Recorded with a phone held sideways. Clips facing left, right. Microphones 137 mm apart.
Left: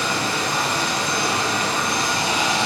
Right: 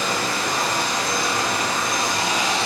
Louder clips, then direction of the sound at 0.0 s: Even; 30° left (ahead or behind).